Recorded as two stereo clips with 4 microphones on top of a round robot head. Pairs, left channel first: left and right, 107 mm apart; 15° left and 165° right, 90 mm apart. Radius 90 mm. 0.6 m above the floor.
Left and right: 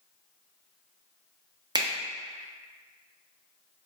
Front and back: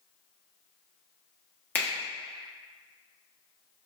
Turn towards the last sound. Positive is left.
turn(degrees=-55)